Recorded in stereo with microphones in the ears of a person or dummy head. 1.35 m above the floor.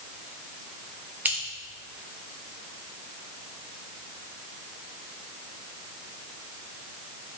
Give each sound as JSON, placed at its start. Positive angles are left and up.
{"t": 1.2, "sound": "scissors", "side_deg": -10, "distance_m": 1.9}